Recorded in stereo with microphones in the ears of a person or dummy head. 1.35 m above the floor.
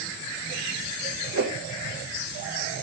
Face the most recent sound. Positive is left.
turn(degrees=-65)  # may be behind; listen again after turning